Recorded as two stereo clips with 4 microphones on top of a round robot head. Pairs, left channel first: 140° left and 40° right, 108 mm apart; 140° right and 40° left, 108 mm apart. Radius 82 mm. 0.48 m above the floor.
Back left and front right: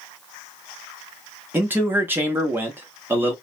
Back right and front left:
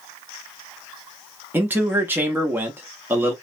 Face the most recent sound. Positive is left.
turn(degrees=0)